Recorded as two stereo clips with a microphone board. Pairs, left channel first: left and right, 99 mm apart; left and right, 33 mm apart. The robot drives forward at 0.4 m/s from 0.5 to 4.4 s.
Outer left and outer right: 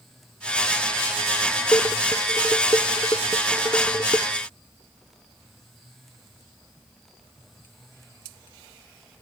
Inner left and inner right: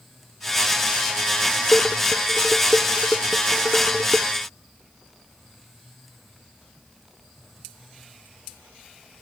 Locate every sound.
1.7 s dishes clattering: 35° left (ahead or behind)